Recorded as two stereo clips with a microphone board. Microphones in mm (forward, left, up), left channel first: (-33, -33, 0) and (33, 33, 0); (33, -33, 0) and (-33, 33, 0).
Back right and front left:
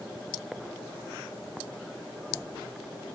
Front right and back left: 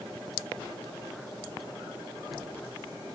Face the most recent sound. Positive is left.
No sound to turn to.